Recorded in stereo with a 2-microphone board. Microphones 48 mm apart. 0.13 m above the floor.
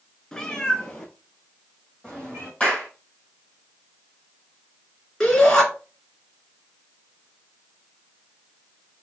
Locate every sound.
0.3 s a cat meowing: 15° left (ahead or behind), 0.8 m
2.6 s a clap: 20° left (ahead or behind), 2.5 m
5.2 s a shout: 15° left (ahead or behind), 2 m